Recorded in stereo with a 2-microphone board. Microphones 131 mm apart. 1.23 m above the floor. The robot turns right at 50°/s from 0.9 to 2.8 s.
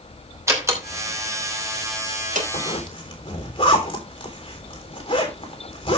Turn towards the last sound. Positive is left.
turn(degrees=40)  # may be behind; listen again after turning